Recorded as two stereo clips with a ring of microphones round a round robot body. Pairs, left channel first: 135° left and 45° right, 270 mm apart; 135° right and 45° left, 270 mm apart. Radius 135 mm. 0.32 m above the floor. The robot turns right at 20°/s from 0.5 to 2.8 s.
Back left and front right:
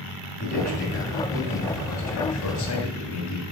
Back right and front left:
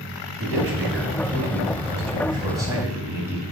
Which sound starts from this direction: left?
A man speaking, at 0.4 s.